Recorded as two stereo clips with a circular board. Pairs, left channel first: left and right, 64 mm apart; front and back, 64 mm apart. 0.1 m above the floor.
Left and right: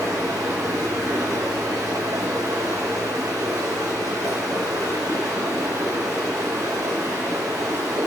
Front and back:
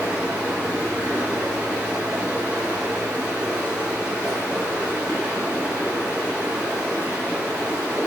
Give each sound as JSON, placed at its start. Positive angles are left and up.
{"t": 0.0, "sound": "running water", "azimuth_deg": -110, "distance_m": 0.9}